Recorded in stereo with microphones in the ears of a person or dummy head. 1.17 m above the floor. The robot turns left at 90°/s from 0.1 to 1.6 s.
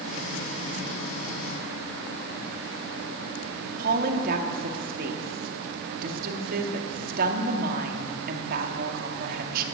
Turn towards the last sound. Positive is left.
turn(degrees=-60)  # may be behind; listen again after turning